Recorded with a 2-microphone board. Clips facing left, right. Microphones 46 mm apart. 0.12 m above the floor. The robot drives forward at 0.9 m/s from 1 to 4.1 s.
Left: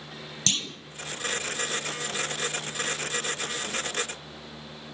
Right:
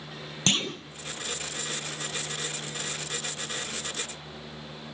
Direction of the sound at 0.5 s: 30° right (ahead or behind).